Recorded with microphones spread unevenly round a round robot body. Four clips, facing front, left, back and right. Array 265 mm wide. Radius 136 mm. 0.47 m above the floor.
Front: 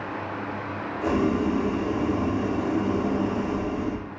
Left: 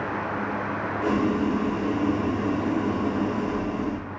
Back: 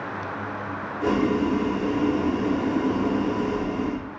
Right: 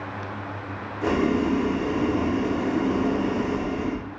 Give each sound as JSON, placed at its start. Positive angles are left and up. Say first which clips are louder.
{"t": 1.0, "sound": "boiling", "louder": "right 2 dB, back 1 dB", "azimuth_deg": -140, "distance_m": 1.4}